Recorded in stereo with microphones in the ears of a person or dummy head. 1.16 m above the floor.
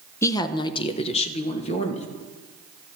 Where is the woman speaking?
15° left (ahead or behind), 0.6 m; by 2.1 s 35° left (ahead or behind), 1.8 m.